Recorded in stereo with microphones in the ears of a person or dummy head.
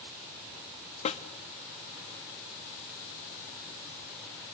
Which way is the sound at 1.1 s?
40° left (ahead or behind).